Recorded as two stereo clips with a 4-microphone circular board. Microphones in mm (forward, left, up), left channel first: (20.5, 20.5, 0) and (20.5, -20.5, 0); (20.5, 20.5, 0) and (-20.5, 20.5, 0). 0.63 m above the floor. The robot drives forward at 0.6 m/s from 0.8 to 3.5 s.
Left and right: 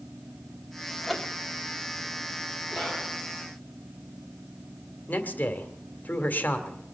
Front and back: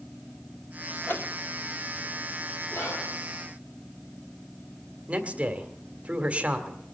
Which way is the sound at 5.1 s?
125° left.